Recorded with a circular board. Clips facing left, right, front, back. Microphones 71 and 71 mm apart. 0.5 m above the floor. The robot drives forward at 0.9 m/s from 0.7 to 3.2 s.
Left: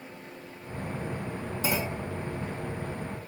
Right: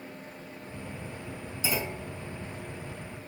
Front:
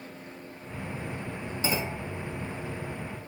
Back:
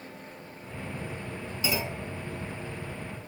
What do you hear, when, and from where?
1.6 s a clunk: 60° left, 4.5 m